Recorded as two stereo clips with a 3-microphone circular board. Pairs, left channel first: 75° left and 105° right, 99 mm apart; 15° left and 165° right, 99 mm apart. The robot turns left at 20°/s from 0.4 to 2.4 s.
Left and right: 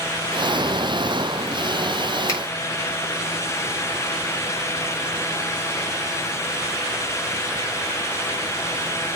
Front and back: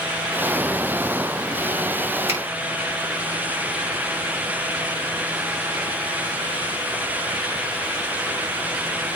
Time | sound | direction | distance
2.3 | a finger snap | 130° left | 6 m